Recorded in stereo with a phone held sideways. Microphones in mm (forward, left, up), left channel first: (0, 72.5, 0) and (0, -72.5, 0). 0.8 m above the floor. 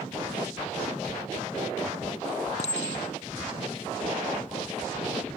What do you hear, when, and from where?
2.6 s a clink: 50° left (ahead or behind)